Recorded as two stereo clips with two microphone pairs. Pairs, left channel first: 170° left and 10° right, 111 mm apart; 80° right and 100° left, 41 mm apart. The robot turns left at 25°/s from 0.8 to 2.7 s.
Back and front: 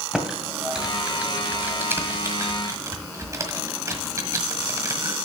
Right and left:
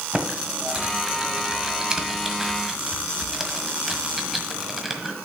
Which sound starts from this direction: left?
Typing on a keyboard, at 0.1 s.